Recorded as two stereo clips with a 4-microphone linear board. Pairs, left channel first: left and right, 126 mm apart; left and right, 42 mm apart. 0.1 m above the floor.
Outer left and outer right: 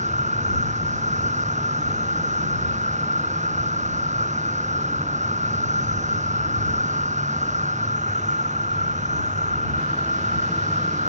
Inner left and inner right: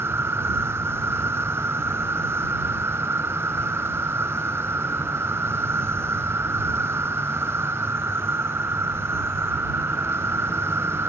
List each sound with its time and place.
0.0 s an insect: 70° right (ahead or behind)